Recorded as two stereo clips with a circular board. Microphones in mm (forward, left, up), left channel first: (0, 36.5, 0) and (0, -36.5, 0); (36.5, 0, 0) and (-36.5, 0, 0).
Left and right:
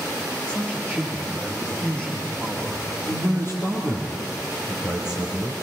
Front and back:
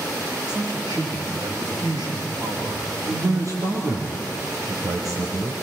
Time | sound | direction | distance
0.5 | a man speaking | 165° left | 8.5 m
3.1 | a man speaking | 145° left | 4.5 m